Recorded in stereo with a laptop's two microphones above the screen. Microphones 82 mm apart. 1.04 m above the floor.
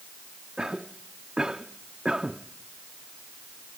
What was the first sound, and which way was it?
A cough, 10° right (ahead or behind).